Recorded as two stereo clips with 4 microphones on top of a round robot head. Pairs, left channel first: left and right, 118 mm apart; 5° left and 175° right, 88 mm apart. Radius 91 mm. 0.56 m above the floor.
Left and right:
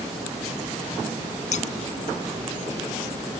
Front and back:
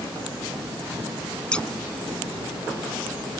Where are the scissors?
80° left.